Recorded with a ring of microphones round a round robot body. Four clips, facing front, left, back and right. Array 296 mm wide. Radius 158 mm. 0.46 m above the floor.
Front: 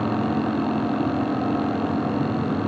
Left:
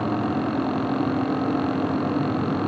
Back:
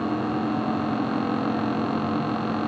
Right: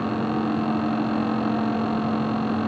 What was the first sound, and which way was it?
Only background noise.